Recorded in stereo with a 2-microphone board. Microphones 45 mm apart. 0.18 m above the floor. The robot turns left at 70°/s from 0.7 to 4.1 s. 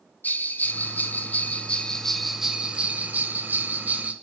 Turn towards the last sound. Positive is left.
turn(degrees=-130)